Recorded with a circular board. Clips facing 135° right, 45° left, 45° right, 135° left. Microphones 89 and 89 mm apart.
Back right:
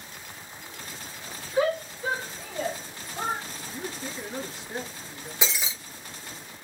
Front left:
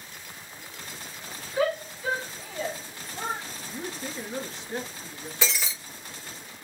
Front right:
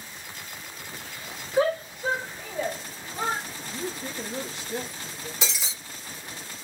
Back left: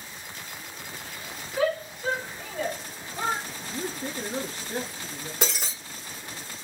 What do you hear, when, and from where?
1.6 s a shout: 80° right, 1.9 m; by 3.4 s 125° right, 2.5 m
3.6 s a man speaking: 140° left, 1.4 m
5.4 s breaking glass: 155° left, 1.2 m